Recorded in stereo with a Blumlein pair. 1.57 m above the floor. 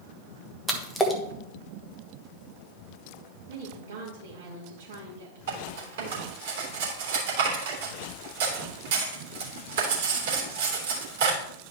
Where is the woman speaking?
60° right, 2.5 m.